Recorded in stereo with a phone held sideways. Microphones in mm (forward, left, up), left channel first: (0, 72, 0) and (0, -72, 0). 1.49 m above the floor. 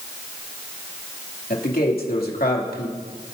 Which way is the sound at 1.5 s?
80° left.